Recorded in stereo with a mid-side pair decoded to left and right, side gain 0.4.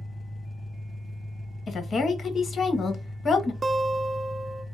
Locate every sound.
0.0 s an engine running: 5° right, 0.9 m
1.7 s a woman speaking: 50° left, 1.2 m
3.6 s a guitar: 35° right, 0.5 m